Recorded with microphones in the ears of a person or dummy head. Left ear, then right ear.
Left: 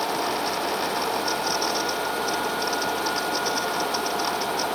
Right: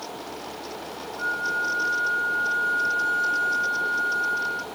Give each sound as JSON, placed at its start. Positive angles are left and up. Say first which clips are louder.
{"t": 1.2, "sound": "a flute", "louder": "left 1 dB", "side_deg": -65, "distance_m": 1.7}